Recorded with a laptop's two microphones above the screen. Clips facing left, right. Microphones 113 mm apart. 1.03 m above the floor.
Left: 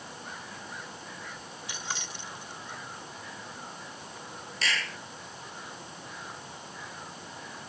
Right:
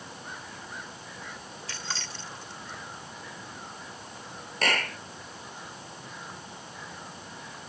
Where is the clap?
45° right (ahead or behind).